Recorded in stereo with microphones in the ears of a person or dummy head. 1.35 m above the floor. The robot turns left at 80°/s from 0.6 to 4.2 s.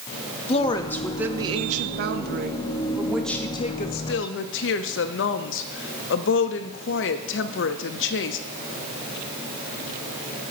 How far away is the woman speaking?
About 0.5 m.